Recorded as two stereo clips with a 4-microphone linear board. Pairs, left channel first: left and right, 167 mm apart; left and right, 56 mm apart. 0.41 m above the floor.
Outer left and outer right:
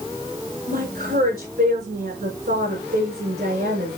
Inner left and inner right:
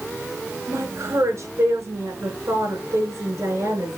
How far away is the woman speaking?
About 5 m.